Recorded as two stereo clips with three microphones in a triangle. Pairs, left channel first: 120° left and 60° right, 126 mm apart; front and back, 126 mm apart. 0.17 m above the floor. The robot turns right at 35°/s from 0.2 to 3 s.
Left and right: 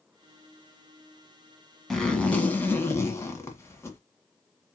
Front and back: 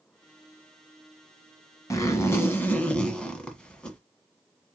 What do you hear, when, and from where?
1.9 s a zipper: 35° left, 1.4 m; by 4.0 s 75° left, 1.4 m